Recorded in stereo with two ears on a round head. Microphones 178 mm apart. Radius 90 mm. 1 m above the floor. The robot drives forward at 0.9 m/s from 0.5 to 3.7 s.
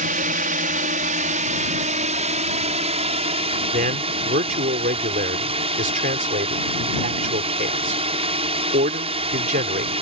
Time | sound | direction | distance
0.0 | a drone | 45° right (ahead or behind) | ?
3.7 | a man speaking | 45° right (ahead or behind) | ?